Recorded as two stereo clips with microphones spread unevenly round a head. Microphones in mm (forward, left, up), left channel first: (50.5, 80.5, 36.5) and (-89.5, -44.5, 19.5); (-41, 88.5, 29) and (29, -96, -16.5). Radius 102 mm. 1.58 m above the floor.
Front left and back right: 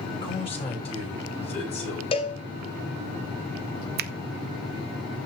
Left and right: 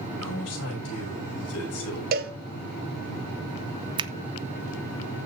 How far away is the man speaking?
About 8 m.